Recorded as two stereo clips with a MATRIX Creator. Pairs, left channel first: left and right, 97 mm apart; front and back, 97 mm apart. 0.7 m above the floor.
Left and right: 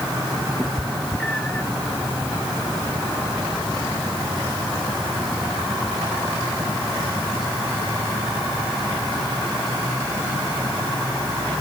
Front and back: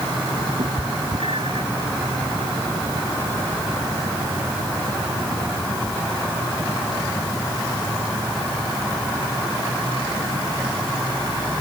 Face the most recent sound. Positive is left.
turn(degrees=165)